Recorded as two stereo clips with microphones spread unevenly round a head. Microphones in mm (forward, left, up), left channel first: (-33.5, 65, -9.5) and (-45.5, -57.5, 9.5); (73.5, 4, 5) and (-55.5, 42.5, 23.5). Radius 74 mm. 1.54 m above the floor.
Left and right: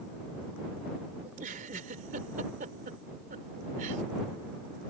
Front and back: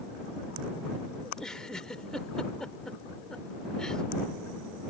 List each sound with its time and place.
1.2 s a giggle: 105° right